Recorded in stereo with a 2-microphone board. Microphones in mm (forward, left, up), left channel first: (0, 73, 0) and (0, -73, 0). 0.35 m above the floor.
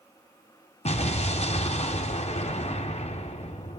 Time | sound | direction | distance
0.8 | an explosion | 50° left (ahead or behind) | 1.9 m